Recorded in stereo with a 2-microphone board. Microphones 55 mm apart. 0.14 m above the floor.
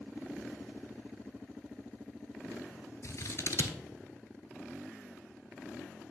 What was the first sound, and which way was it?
Scissors, 55° left (ahead or behind).